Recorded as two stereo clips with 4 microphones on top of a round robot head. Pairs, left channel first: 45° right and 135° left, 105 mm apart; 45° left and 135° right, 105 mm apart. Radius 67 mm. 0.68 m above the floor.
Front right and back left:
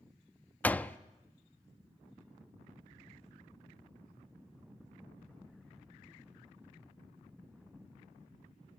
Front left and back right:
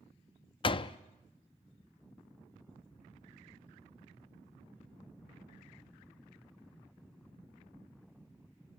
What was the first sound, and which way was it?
A door slam, 25° left.